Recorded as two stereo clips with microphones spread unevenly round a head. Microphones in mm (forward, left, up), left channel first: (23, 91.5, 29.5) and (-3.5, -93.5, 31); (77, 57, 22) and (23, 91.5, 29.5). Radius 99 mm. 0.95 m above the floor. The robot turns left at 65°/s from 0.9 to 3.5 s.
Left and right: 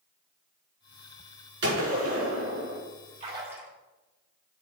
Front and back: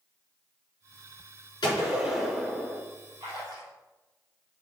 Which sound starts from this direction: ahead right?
A gunshot, at 1.6 s.